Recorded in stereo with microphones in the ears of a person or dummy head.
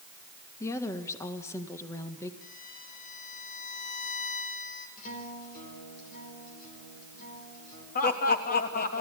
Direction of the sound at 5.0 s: 50° left (ahead or behind).